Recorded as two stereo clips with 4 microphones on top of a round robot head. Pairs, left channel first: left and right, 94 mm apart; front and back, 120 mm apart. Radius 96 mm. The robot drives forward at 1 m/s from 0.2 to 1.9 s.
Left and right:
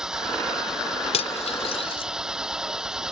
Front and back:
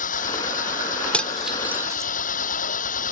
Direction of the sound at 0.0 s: 5° right.